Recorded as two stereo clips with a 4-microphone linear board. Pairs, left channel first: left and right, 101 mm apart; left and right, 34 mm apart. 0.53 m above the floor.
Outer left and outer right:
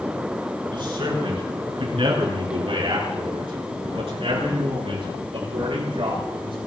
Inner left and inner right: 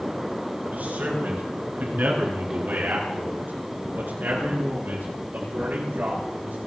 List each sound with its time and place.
0.7 s a man speaking: 60° right (ahead or behind), 6.5 m; by 6.6 s 75° right (ahead or behind), 8.5 m